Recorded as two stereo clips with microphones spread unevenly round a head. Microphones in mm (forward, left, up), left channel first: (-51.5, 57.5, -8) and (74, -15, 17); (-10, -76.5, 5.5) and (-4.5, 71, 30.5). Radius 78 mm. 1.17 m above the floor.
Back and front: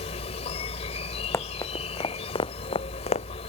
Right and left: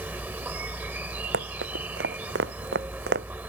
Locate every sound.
0.0 s an insect: 130° left
1.3 s running footsteps: 75° left; by 3.3 s 100° left